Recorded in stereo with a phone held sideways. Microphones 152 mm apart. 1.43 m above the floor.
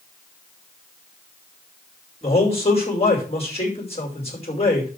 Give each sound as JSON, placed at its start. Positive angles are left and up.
{"t": 2.2, "sound": "a man speaking", "side_deg": 45, "distance_m": 5.5}